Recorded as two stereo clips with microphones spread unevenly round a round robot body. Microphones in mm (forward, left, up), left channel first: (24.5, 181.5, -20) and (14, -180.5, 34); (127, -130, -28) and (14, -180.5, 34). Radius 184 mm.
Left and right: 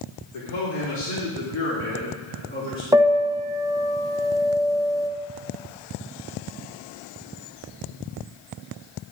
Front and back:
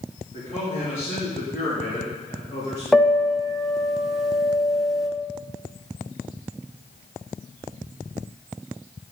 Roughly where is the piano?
Ahead.